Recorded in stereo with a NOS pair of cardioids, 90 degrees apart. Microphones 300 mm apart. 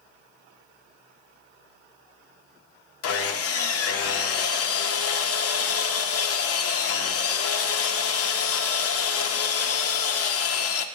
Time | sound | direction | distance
3.0 | sawing | 50° left | 0.7 m